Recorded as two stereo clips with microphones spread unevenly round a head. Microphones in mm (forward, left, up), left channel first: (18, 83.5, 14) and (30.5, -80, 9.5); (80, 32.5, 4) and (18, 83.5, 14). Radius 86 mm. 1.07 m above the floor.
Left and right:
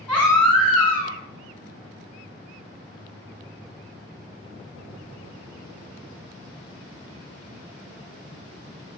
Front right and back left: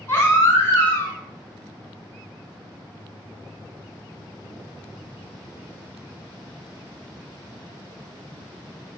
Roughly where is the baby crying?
Ahead.